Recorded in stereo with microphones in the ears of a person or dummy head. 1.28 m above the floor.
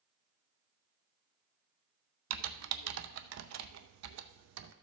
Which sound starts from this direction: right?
Typing on a keyboard, at 2.3 s.